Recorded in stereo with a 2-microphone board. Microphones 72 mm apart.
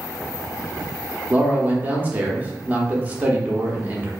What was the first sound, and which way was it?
A man speaking, 20° right (ahead or behind).